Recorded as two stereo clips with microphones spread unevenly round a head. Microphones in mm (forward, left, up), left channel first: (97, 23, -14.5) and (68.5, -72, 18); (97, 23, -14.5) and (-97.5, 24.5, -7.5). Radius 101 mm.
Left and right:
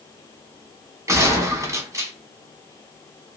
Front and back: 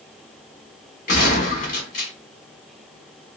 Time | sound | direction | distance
1.1 | a gunshot | 40° right | 1.4 m